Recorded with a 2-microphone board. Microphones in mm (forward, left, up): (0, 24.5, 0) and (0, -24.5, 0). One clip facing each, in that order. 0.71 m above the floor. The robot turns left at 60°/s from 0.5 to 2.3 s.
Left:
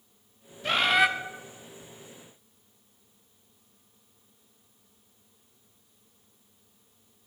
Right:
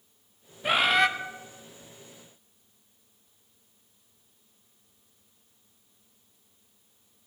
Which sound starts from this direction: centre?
A bird, at 0.6 s.